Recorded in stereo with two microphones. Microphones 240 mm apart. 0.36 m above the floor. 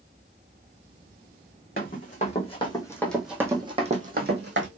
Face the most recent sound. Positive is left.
turn(degrees=-55)  # may be behind; listen again after turning